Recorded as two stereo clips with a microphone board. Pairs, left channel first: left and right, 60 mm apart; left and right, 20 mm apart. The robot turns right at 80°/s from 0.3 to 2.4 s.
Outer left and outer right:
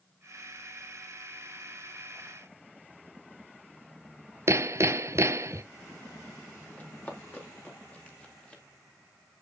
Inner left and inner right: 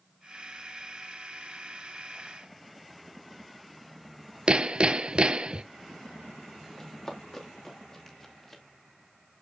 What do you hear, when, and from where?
4.5 s hammering: 50° right (ahead or behind), 0.6 m
6.8 s running footsteps: 25° left (ahead or behind), 4.5 m; by 8.6 s 20° left (ahead or behind), 3 m